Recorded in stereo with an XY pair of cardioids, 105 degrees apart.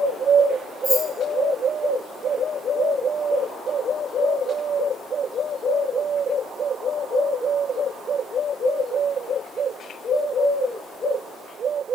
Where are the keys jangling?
30° left, 6.5 m.